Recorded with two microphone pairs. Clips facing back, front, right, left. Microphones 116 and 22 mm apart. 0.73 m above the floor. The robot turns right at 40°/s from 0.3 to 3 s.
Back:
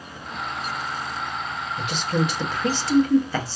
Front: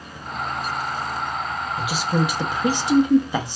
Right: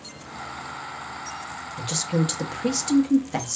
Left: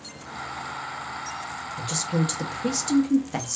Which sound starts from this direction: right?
A woman speaking, at 1.8 s.